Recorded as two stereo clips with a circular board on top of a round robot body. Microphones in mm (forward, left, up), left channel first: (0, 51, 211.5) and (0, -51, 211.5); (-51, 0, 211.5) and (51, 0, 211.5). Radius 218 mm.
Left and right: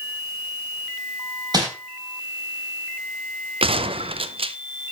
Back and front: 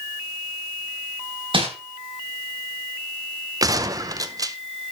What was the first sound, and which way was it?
Crumpling, 40° right.